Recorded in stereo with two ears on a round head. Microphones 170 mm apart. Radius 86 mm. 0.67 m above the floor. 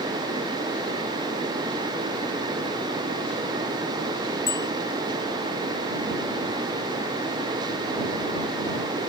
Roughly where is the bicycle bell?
Centre.